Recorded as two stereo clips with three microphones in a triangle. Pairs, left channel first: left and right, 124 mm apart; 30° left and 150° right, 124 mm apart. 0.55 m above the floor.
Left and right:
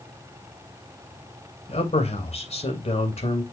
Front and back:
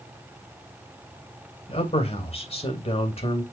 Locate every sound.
1.7 s a man speaking: 60° left, 3 m